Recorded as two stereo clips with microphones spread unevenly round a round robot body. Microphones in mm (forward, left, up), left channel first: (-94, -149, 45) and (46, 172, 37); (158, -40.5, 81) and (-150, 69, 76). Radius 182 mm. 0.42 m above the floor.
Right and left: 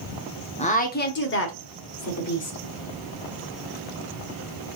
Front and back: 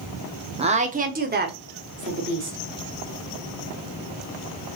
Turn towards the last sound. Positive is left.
turn(degrees=-150)